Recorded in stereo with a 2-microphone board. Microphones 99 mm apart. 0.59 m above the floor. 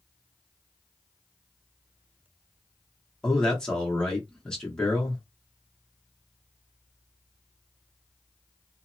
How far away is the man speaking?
About 0.9 m.